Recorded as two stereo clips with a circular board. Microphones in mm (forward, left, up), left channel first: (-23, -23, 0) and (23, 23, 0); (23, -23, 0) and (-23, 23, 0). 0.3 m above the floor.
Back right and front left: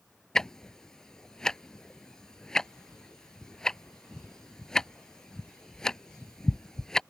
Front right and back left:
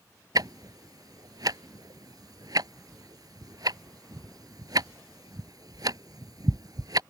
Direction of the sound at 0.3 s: 145° left.